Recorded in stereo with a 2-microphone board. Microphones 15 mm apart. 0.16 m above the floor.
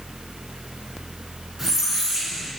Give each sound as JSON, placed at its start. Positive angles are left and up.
{"t": 1.6, "sound": "a squeak", "side_deg": -20, "distance_m": 1.5}